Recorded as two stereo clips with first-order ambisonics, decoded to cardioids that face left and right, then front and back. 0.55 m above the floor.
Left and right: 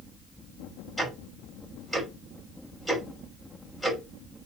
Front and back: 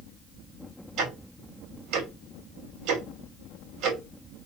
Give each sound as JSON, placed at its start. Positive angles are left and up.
{"t": 1.0, "sound": "ticking", "azimuth_deg": 180, "distance_m": 1.5}